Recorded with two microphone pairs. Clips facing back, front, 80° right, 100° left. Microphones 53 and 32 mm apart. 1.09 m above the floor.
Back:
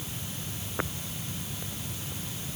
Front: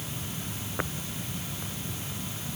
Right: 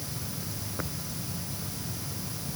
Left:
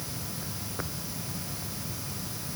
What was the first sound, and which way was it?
Only background noise.